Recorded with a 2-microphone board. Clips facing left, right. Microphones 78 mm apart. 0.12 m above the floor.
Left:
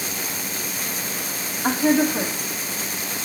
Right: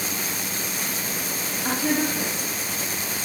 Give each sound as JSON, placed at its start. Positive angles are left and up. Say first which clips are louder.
{"t": 1.6, "sound": "a woman speaking", "louder": "left 6 dB", "side_deg": 55, "distance_m": 5.5}